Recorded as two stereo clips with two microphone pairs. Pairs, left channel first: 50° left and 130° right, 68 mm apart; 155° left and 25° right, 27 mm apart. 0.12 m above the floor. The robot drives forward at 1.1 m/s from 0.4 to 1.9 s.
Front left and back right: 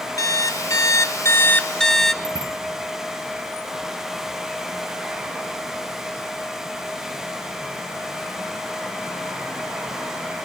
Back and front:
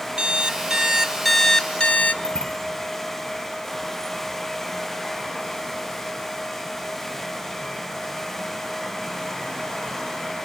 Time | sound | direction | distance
0.2 | an alarm clock | 20° left | 1.4 m
2.2 | a bicycle bell | 160° right | 8 m